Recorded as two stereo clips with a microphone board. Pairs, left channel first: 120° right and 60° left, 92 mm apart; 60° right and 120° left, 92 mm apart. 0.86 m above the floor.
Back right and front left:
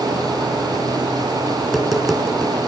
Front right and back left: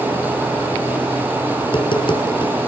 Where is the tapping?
30° right, 4 m.